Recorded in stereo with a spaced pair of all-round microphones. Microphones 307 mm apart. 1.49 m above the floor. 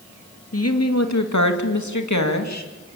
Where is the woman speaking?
55° left (ahead or behind), 2.5 m; by 2.7 s 60° left (ahead or behind), 3 m.